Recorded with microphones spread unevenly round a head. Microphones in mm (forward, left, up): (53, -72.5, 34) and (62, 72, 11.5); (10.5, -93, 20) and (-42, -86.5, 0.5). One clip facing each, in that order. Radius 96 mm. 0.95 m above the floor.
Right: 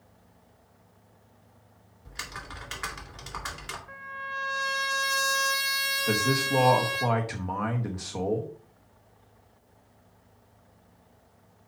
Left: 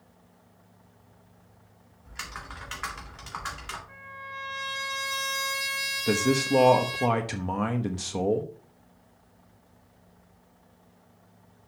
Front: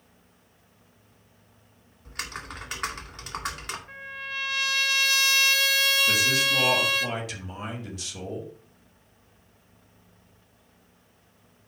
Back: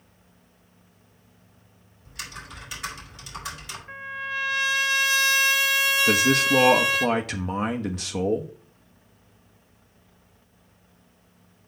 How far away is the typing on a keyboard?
About 2.5 m.